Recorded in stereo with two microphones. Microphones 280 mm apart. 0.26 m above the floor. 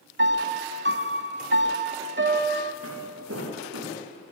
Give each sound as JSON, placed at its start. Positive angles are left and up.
{"t": 0.2, "sound": "a piano", "side_deg": -40, "distance_m": 1.4}
{"t": 2.8, "sound": "footsteps", "side_deg": -50, "distance_m": 7.5}